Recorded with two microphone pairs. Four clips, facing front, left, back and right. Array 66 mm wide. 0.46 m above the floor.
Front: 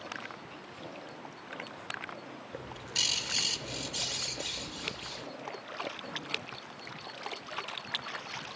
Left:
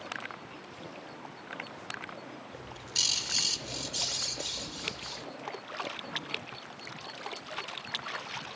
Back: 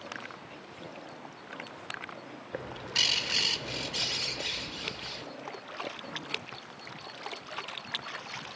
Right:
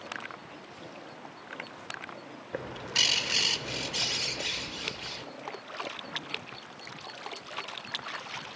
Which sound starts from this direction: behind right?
A bird, at 2.5 s.